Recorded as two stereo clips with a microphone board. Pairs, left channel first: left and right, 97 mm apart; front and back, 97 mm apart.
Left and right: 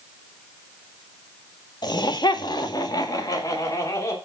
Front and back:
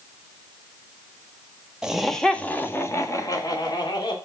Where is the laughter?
100° left, 1.6 m; by 4.2 s 35° left, 3 m.